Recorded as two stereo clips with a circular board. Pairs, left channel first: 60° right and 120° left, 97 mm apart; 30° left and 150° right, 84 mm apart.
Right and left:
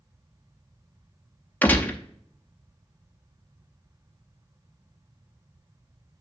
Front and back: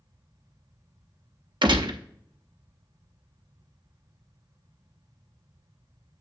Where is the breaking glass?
I don't hear breaking glass.